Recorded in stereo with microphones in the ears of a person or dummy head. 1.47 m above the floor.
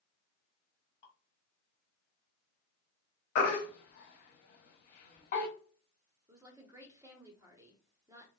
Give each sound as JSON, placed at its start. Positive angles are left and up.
{"t": 1.0, "sound": "dripping", "side_deg": 45, "distance_m": 1.5}
{"t": 3.4, "sound": "a baby crying", "side_deg": 45, "distance_m": 0.9}
{"t": 6.3, "sound": "a woman speaking", "side_deg": -15, "distance_m": 0.8}